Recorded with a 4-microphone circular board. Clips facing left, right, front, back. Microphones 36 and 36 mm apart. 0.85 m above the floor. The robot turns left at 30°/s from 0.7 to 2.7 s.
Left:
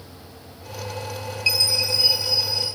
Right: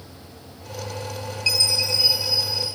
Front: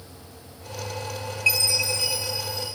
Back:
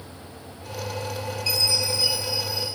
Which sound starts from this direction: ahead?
A chime, at 1.5 s.